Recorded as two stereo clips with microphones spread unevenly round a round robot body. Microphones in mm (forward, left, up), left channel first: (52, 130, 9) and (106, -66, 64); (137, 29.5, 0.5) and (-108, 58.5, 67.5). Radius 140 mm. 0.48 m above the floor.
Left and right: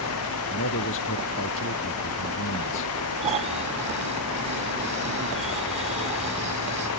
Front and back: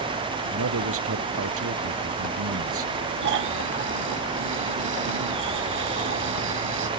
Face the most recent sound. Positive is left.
turn(degrees=-140)